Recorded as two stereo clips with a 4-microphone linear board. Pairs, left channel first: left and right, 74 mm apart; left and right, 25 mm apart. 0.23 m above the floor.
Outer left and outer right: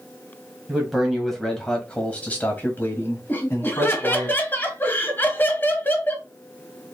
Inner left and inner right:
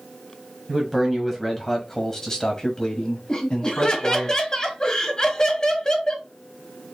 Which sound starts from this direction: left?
Laughter, at 3.3 s.